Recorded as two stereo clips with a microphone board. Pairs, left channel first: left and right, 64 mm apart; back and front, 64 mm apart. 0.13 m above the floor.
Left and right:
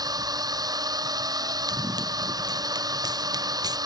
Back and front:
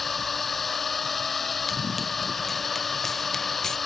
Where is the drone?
95° right.